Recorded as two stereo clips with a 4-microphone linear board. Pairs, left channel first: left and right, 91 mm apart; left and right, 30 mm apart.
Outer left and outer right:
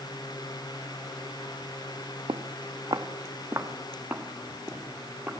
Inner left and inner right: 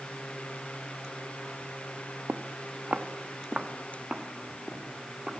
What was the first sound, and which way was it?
Footsteps, 75° right (ahead or behind).